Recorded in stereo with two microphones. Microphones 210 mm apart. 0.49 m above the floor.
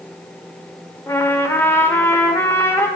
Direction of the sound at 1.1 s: 10° left (ahead or behind).